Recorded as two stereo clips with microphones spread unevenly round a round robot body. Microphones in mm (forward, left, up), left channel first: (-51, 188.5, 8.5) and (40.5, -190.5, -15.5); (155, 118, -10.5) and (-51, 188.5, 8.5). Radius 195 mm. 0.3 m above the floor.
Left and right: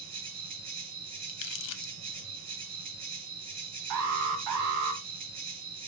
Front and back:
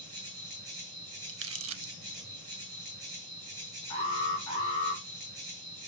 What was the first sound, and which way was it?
An insect, 130° right.